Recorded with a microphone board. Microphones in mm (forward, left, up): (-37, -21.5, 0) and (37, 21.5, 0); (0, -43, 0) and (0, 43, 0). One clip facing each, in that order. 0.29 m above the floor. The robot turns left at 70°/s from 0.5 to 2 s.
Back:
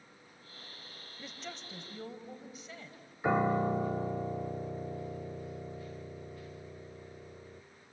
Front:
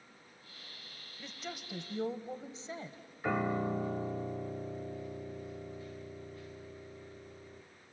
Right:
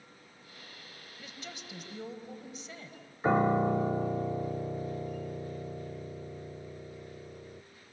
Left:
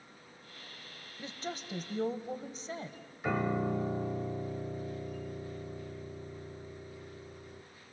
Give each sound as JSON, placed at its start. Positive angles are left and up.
{"t": 1.2, "sound": "a woman speaking", "azimuth_deg": 130, "distance_m": 1.4}
{"t": 3.2, "sound": "a piano", "azimuth_deg": -95, "distance_m": 0.7}